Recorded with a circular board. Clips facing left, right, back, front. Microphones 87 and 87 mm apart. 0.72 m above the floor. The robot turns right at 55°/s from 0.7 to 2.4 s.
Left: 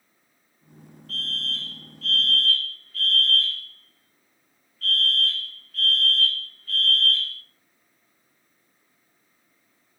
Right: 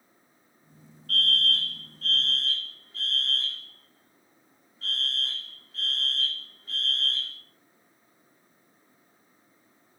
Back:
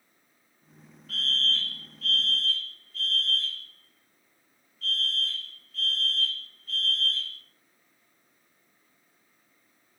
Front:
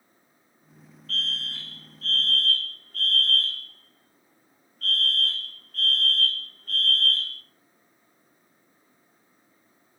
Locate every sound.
1.1 s a fire alarm: 100° right, 3 m; by 7.4 s 25° right, 3 m